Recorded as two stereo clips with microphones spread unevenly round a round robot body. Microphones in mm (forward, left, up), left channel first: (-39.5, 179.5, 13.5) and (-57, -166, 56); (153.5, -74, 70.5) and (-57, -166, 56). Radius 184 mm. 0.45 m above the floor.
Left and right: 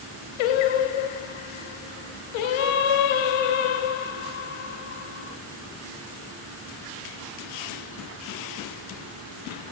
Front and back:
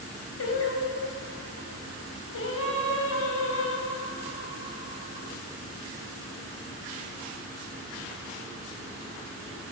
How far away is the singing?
About 0.6 m.